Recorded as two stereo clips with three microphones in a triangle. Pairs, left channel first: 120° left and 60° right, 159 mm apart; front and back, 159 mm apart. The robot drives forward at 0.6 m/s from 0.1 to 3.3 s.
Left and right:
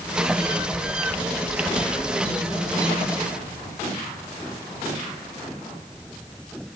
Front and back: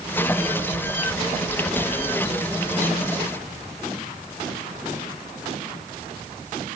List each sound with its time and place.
Only background noise.